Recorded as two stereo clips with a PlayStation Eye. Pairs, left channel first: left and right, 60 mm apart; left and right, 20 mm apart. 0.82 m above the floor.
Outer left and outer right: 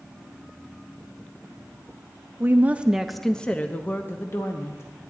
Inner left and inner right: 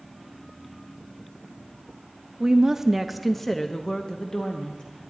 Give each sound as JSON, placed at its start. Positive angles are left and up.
{"t": 2.4, "sound": "a woman speaking", "side_deg": -35, "distance_m": 0.6}